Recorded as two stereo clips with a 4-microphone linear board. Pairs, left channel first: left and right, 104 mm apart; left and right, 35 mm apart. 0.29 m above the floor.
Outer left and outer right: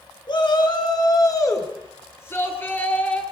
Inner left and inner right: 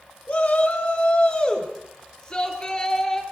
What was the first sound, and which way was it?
A shout, 50° left (ahead or behind).